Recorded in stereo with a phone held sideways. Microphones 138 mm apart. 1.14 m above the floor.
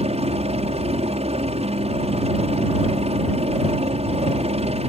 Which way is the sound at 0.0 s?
50° right (ahead or behind).